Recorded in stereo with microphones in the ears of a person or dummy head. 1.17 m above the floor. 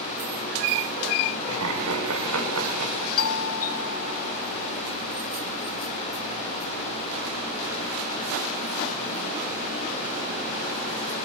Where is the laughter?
80° right, 7.5 m; by 3.1 s 85° right, 7.5 m.